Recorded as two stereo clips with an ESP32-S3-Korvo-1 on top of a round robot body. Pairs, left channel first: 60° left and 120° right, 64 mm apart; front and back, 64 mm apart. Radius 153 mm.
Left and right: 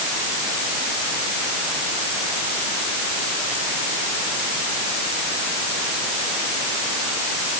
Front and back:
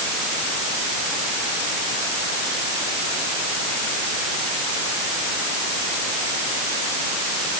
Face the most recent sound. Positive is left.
No sound to turn to.